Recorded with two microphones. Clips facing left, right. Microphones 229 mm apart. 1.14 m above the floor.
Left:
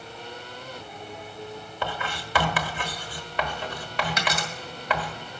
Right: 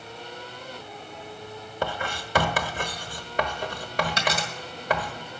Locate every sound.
1.8 s writing: 45° right (ahead or behind), 1.1 m
4.2 s a dropped coin: 30° right (ahead or behind), 2.0 m